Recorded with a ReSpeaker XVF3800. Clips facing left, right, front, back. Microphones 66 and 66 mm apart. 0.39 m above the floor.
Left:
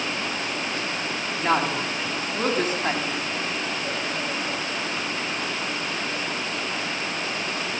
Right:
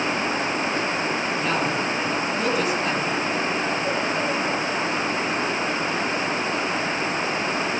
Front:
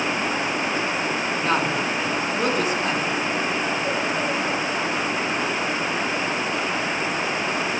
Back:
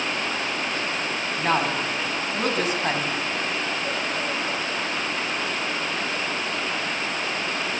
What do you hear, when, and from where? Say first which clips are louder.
1.4 s a woman speaking: left 5 dB, back 1 dB; 140° left, 3.5 m